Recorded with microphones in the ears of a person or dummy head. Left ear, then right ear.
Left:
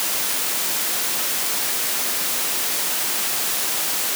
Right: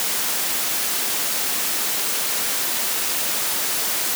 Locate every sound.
Only background noise.